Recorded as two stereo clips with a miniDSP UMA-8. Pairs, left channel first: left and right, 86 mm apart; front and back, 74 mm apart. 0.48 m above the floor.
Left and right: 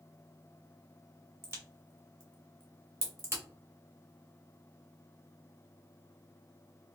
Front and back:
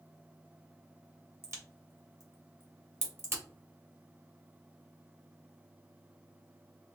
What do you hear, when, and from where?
1.4 s a crack: 140° right, 1.6 m